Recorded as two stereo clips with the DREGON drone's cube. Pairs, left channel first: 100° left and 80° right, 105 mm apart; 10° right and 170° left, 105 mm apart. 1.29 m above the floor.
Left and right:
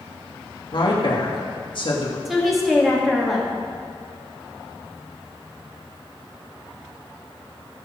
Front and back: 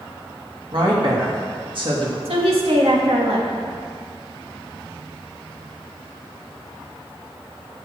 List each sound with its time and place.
0.7 s a woman speaking: 135° left, 2.5 m
2.2 s a woman speaking: 170° right, 2 m